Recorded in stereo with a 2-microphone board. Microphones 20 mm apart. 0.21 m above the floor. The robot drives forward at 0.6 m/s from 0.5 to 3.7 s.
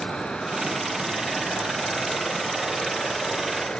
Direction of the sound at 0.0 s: 60° left (ahead or behind).